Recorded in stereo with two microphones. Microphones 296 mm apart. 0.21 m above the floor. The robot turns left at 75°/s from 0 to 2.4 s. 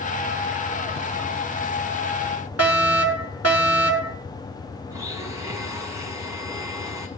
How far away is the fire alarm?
About 5 m.